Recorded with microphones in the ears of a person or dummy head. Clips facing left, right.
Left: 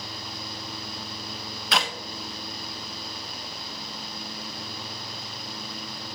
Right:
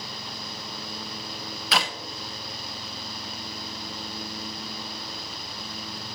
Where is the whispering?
I don't hear whispering.